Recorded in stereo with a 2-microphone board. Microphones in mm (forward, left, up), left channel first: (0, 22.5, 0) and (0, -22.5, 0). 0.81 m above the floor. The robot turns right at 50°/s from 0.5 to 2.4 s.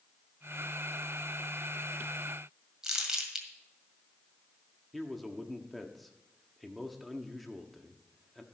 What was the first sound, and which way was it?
Crumpling, 15° right (ahead or behind).